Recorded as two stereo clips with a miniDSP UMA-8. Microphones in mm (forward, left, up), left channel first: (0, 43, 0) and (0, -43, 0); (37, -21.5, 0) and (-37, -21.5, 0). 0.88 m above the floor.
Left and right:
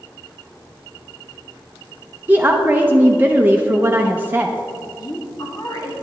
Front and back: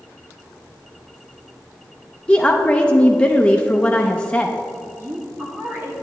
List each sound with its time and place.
2.3 s a woman speaking: 55° right, 0.5 m
5.0 s a woman speaking: 125° left, 1.4 m